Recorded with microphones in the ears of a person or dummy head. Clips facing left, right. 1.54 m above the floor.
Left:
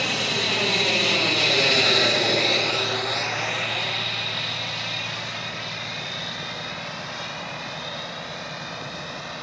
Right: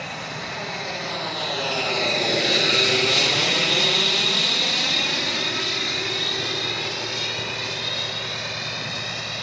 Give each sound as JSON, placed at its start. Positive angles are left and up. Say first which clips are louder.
{"t": 0.0, "sound": "an aircraft", "louder": "left 6 dB", "side_deg": 55}